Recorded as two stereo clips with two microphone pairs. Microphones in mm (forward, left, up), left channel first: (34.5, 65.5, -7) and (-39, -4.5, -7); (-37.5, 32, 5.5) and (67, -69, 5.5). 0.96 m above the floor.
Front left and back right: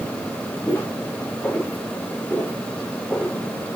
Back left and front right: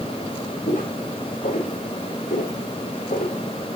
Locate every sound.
0.7 s footsteps: 110° left, 6 m; by 3.4 s 120° left, 7.5 m